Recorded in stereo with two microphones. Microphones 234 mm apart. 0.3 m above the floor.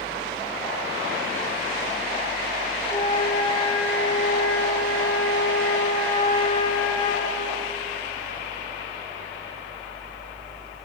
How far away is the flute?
About 6 m.